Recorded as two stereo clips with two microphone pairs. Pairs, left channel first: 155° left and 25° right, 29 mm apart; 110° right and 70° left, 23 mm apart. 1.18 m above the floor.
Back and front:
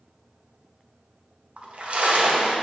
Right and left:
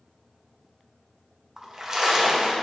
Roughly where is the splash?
Ahead.